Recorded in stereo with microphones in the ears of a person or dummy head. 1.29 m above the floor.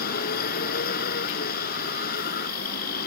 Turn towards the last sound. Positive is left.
turn(degrees=55)  # may be behind; listen again after turning